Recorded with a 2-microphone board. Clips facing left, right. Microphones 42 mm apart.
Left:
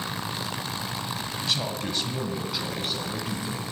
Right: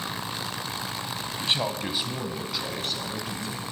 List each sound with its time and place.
1.4 s a man speaking: 30° right (ahead or behind), 1.4 m; by 3.6 s 10° left (ahead or behind), 3.5 m